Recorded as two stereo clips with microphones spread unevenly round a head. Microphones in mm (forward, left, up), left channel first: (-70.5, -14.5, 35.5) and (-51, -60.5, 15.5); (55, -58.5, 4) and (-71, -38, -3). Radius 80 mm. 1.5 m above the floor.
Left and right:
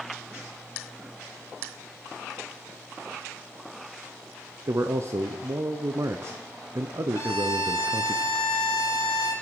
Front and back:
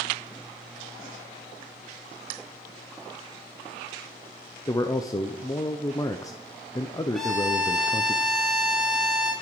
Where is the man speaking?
75° right, 0.7 m.